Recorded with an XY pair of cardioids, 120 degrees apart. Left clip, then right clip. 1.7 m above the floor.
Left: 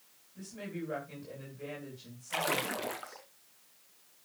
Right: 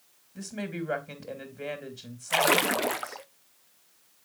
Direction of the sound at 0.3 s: 65° right.